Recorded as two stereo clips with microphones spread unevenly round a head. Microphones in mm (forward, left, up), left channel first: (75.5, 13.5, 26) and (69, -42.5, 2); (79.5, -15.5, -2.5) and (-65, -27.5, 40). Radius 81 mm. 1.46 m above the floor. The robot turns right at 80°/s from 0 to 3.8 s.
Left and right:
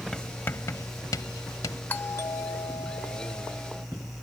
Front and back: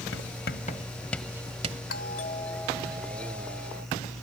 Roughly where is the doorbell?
Ahead left.